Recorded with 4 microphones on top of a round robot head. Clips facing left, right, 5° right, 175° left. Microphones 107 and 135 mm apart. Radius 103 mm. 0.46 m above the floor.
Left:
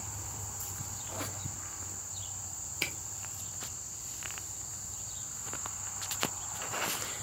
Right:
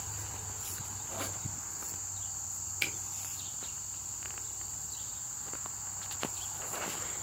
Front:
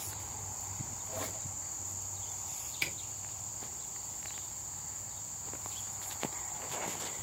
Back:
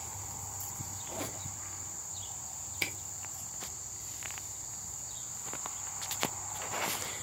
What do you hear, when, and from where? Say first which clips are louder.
1.1 s a squeak: even, back 2 dB; straight behind, 1.9 m
2.8 s a camera shutter: left 1 dB, back 3 dB; 140° left, 1.1 m